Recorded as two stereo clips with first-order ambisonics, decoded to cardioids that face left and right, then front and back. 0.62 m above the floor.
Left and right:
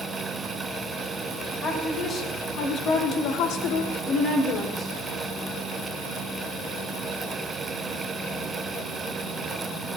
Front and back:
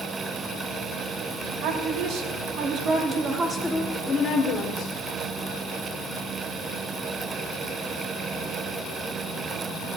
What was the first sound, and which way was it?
A woman speaking, 155° left.